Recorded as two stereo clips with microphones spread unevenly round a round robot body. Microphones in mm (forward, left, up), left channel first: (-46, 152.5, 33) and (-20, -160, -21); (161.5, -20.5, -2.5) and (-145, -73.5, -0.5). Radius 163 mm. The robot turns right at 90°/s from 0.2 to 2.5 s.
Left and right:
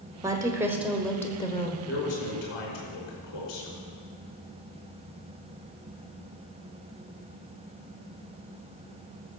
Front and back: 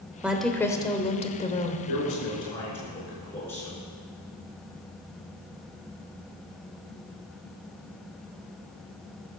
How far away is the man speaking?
About 5 m.